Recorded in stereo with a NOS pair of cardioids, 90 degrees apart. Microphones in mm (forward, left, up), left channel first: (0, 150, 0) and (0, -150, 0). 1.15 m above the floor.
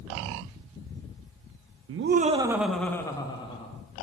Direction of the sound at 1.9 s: 50° right.